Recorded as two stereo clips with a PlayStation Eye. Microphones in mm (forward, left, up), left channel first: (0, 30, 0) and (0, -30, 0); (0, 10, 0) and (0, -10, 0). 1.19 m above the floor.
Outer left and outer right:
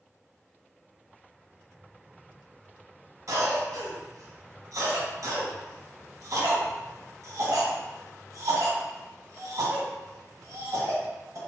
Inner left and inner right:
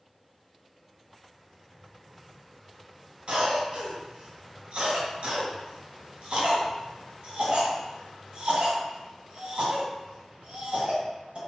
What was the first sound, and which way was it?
A cough, 60° right (ahead or behind).